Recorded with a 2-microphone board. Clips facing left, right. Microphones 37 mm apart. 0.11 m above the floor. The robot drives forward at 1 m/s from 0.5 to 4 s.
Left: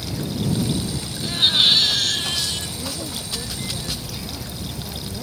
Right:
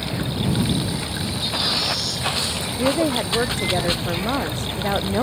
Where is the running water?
40° right (ahead or behind); by 5.2 s 45° right (ahead or behind).